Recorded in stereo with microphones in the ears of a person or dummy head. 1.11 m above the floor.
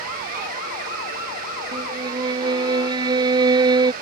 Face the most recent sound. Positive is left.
turn(degrees=-25)  # may be behind; listen again after turning